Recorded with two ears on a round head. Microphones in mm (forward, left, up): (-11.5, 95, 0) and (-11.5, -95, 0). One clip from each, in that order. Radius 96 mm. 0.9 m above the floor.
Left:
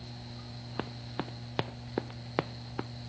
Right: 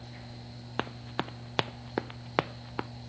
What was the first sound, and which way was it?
Running footsteps, 50° right (ahead or behind).